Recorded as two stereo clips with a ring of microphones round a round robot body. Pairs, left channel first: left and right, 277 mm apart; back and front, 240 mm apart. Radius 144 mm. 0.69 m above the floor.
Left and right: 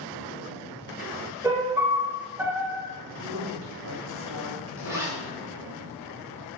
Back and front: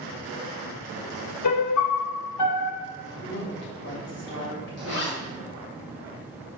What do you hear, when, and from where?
1.4 s a piano: 170° right, 0.8 m
3.2 s a woman speaking: 130° right, 3 m
4.8 s a zipper: 170° right, 2.5 m